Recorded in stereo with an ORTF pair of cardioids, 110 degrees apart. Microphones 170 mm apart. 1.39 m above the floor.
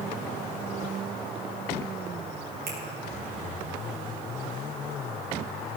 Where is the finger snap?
70° right, 4.5 m.